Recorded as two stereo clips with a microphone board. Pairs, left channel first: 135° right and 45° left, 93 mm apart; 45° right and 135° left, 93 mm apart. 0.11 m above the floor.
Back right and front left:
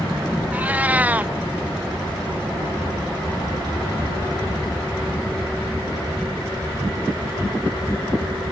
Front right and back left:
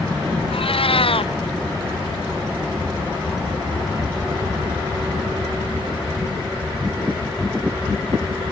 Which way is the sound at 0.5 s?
30° right.